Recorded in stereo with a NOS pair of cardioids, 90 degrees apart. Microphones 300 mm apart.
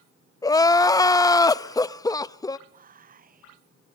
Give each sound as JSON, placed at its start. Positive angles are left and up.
{"t": 0.4, "sound": "crying", "azimuth_deg": 10, "distance_m": 0.6}
{"t": 2.7, "sound": "whispering", "azimuth_deg": -30, "distance_m": 0.5}